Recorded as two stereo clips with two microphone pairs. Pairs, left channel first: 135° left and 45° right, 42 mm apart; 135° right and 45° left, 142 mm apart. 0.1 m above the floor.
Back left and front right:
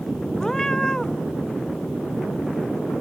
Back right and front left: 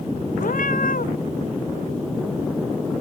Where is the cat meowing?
150° right.